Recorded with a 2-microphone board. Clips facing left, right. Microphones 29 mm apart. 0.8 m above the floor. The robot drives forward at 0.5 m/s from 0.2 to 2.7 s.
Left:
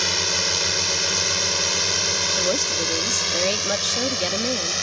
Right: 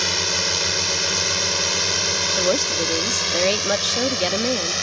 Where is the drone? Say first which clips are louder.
Right 1 dB; 5° right (ahead or behind); by 4.8 s 10° right (ahead or behind).